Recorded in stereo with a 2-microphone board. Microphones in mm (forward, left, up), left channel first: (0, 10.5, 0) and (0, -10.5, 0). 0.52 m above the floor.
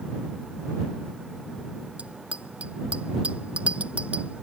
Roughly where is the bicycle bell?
Right.